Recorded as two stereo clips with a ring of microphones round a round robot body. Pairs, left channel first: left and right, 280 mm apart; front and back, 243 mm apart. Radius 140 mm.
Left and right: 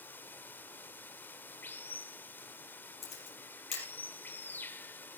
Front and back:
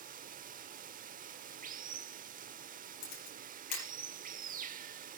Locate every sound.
0.0 s running water: 170° left, 0.9 m
3.0 s a camera shutter: 20° left, 5 m